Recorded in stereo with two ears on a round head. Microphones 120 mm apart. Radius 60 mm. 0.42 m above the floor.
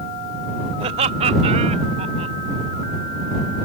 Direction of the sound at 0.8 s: 45° right (ahead or behind).